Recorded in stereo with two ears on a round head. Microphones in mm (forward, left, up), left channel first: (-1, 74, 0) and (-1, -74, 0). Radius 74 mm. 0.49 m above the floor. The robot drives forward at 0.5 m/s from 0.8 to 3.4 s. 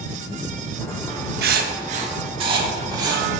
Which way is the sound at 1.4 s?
65° right (ahead or behind).